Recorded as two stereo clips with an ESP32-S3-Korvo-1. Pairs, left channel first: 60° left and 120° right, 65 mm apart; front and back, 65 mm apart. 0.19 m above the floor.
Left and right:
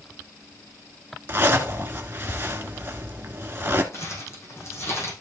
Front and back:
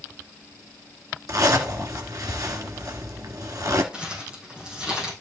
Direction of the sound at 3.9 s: 105° left.